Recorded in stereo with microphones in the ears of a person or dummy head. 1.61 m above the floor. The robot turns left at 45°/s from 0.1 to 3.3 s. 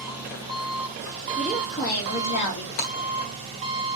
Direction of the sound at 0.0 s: 5° right.